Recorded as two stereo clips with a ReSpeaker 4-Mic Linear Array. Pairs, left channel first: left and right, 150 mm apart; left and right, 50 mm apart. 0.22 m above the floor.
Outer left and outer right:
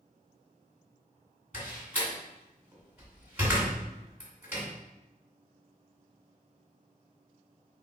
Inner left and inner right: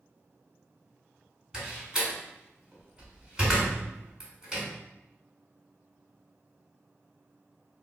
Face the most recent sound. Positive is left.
turn(degrees=-15)  # may be behind; listen again after turning